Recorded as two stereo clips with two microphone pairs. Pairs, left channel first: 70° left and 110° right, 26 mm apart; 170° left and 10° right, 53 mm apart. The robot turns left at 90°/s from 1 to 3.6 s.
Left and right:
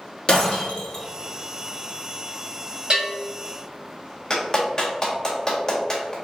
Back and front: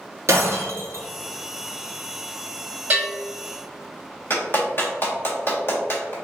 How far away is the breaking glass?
About 1.9 m.